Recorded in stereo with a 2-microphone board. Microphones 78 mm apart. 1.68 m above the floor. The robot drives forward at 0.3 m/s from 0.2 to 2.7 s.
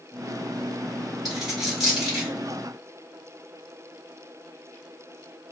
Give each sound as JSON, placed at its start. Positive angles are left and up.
{"t": 1.2, "sound": "a dropped coin", "side_deg": -5, "distance_m": 1.9}